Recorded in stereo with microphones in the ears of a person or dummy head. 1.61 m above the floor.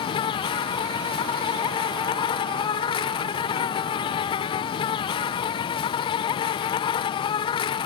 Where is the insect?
25° left (ahead or behind).